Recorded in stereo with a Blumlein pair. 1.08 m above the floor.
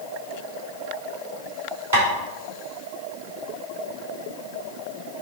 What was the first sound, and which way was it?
Tapping, 70° right.